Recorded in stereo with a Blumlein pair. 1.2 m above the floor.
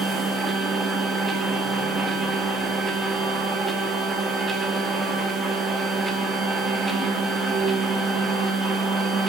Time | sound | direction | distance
0.0 | a machine running | 5° right | 1.2 m